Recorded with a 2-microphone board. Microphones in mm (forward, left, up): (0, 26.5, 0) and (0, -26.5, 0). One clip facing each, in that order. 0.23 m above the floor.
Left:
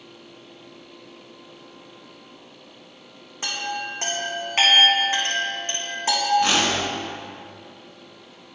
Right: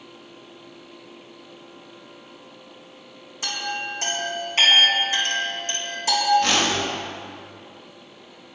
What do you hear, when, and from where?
3.4 s a chime: 35° left (ahead or behind), 4 m
6.4 s a whoosh: 15° left (ahead or behind), 3 m